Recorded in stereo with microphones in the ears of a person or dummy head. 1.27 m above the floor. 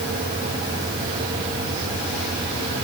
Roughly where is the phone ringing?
I don't hear a phone ringing.